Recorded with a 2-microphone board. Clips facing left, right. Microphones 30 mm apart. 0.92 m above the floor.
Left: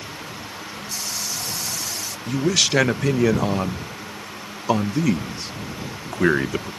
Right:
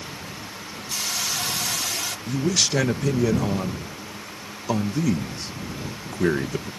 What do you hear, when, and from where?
0.9 s a hiss: 75° right (ahead or behind)
2.3 s a man speaking: 30° left (ahead or behind)